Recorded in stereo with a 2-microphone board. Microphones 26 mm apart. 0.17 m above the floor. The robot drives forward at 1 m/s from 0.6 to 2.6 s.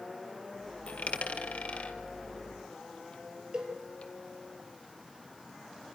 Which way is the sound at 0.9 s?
75° left (ahead or behind).